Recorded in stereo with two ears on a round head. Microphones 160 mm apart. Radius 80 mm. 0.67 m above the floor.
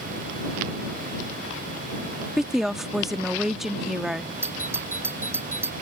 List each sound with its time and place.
2.4 s a woman speaking: centre (ahead or behind)
4.4 s a doorbell: 15° right (ahead or behind)